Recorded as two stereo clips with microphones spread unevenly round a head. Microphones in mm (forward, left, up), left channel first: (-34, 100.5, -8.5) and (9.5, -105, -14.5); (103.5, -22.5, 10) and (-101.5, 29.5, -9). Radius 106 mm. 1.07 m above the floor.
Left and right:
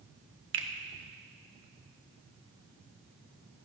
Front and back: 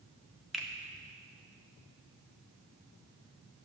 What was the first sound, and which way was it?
A finger snap, 105° right.